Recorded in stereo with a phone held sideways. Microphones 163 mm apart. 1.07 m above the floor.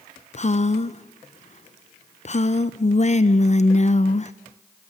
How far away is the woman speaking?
About 0.5 m.